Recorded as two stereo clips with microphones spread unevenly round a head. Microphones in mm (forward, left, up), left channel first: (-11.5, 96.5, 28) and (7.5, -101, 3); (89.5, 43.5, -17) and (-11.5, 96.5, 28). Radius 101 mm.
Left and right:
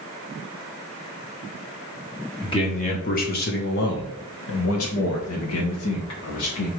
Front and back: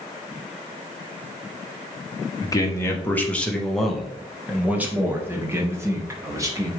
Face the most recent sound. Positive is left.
turn(degrees=90)